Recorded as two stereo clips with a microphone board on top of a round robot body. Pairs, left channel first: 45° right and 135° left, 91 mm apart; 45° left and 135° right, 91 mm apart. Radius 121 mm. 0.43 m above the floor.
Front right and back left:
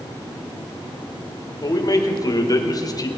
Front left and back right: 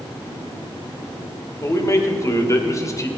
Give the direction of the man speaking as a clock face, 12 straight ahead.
12 o'clock.